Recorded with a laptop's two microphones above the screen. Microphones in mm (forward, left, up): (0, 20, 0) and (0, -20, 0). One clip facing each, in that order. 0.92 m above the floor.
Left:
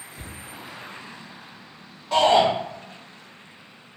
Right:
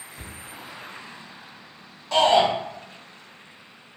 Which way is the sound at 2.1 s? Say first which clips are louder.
Left 1 dB; 10° left (ahead or behind).